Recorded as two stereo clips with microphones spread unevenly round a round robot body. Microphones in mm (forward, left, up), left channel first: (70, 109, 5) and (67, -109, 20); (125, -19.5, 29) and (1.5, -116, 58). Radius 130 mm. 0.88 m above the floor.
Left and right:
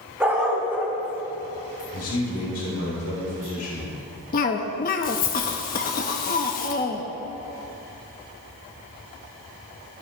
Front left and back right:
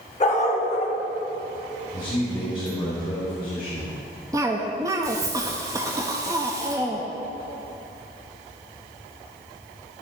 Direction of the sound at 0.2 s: 10° right.